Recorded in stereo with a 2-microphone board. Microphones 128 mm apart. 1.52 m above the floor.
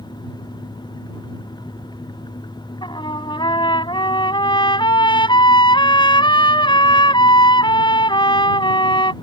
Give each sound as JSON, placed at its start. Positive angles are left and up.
{"t": 2.8, "sound": "a trumpet", "side_deg": 40}